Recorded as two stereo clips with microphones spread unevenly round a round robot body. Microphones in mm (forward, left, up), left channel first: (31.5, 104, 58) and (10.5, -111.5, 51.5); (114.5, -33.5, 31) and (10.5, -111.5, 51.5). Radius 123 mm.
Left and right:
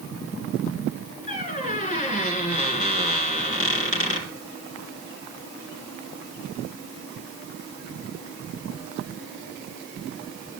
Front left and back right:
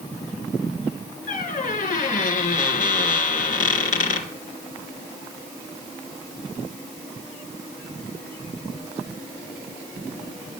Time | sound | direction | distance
1.3 | a squeak | 30° left | 2.5 m